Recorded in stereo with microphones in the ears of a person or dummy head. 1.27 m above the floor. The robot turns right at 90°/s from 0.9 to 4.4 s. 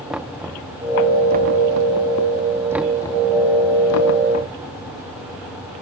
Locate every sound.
0.1 s knocking: 5° right (ahead or behind); by 4.5 s 40° left (ahead or behind)